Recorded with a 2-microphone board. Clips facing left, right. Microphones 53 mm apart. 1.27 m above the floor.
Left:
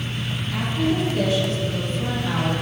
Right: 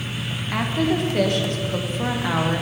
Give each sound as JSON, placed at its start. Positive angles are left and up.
{"t": 0.5, "sound": "a woman speaking", "side_deg": -60, "distance_m": 1.1}